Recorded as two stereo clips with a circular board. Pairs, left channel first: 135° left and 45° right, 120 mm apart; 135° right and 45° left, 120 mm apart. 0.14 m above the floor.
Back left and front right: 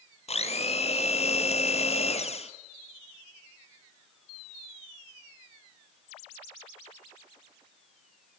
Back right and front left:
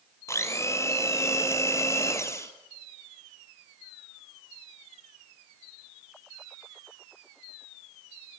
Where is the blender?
160° left, 1.5 m.